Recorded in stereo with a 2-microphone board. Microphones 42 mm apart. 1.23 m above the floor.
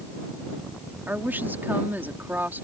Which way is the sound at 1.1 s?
50° right (ahead or behind).